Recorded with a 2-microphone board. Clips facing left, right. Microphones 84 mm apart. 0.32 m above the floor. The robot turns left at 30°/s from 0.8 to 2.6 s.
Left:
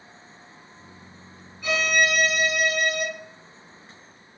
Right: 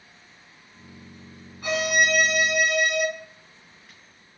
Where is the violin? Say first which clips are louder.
Even; 55° right (ahead or behind), 1.4 m; by 3.0 s 75° right (ahead or behind), 1.4 m.